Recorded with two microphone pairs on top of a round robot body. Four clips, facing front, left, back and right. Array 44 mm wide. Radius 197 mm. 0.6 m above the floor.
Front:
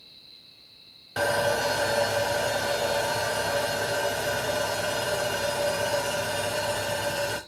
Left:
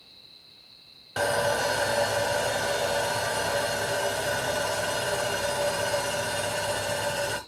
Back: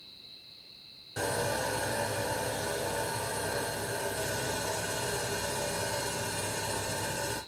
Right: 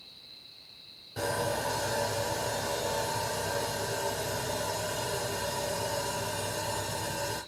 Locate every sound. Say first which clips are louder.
1.2 s sawing: left 6 dB, front 7 dB; 55° left, 0.9 m